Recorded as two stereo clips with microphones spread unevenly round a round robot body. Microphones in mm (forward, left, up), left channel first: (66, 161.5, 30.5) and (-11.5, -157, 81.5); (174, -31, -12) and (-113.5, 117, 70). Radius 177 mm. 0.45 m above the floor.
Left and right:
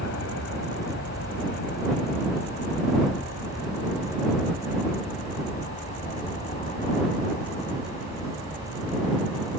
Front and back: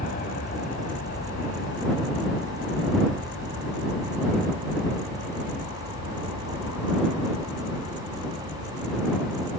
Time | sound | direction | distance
0.0 | an aircraft | 30° left | ?